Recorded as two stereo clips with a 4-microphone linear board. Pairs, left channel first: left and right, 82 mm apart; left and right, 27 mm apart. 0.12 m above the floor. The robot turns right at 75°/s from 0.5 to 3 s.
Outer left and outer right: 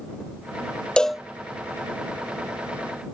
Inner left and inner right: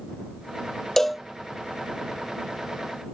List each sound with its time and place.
1.0 s a cowbell: 10° left (ahead or behind); by 1.2 s 10° right (ahead or behind)